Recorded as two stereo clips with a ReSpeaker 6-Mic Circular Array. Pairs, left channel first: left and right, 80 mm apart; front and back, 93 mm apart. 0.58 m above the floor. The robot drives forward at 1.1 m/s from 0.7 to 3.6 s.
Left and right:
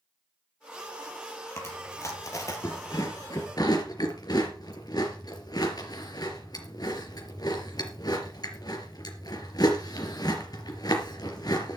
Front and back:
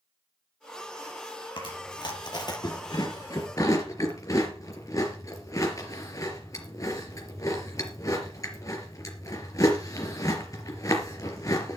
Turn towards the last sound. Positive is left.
turn(degrees=55)